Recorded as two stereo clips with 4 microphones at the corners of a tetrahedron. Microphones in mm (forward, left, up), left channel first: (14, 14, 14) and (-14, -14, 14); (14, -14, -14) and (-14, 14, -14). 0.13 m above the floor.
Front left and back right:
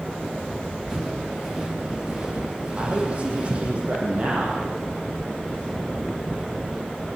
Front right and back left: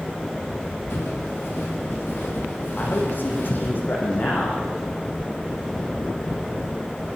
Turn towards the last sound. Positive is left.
turn(degrees=-80)